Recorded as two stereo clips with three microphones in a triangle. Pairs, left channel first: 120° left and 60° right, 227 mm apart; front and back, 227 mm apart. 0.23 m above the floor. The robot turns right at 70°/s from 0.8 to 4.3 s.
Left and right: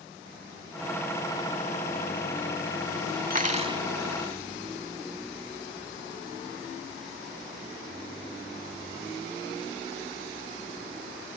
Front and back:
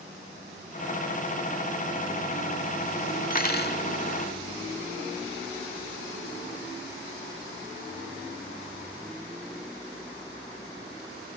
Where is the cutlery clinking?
30° right; by 3.8 s 5° left.